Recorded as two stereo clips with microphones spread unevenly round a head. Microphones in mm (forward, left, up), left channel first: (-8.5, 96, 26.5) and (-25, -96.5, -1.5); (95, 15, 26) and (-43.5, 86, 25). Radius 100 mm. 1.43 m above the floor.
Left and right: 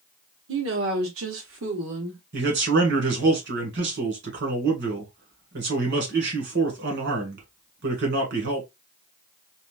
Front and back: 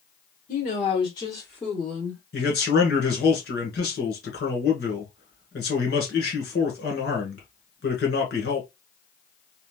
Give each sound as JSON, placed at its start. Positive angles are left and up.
{"t": 0.5, "sound": "a woman speaking", "azimuth_deg": -75, "distance_m": 1.0}
{"t": 2.3, "sound": "a man speaking", "azimuth_deg": -65, "distance_m": 1.6}